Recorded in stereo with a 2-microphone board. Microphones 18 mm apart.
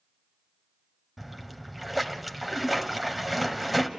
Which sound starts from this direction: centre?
A splash, at 1.2 s.